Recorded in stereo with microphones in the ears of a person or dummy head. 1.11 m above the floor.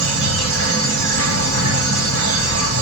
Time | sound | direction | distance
0.0 | an insect | 65° right (ahead or behind) | 1.8 m